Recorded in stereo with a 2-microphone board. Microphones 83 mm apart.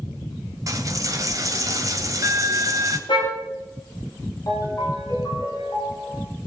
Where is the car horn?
75° left (ahead or behind), 9 m.